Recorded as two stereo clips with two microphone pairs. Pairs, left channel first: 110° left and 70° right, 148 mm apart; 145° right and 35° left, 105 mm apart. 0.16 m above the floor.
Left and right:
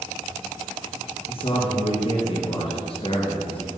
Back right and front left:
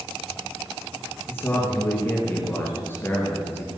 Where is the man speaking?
150° left, 3 m.